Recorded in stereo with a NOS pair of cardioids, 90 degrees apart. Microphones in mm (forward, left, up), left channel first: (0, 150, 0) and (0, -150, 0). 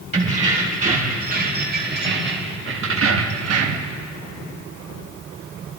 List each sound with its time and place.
0.1 s keys jangling: 25° right, 3 m; by 4.0 s 70° right, 1.1 m